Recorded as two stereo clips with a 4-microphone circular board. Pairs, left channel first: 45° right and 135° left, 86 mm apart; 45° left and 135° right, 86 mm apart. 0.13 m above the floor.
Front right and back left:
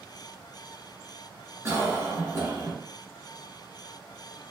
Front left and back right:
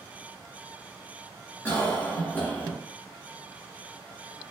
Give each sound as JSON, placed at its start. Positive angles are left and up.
{"t": 1.6, "sound": "a cough", "azimuth_deg": 105, "distance_m": 1.6}